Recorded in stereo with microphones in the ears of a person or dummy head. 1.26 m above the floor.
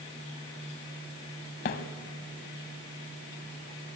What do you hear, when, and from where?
1.6 s a thud: 35° left (ahead or behind), 1.3 m